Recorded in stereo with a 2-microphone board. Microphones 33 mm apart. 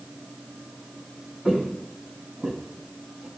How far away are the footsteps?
About 1.8 m.